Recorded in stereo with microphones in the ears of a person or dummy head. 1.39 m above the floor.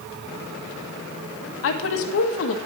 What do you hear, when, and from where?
1.6 s a woman speaking: 75° left (ahead or behind), 1.3 m